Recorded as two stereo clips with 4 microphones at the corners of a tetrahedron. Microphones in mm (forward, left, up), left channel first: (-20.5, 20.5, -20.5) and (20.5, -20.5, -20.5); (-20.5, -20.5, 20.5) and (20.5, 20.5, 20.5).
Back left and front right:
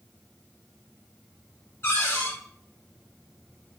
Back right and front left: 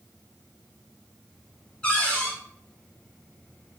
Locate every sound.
1.8 s a cupboard door: 155° left, 1.7 m